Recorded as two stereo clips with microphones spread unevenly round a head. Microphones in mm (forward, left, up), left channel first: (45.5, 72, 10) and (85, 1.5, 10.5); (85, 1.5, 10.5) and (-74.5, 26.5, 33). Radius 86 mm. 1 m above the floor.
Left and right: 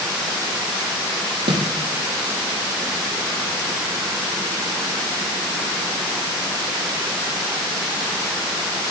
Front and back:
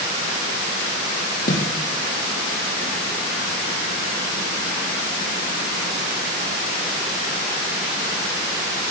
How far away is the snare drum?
About 5.5 m.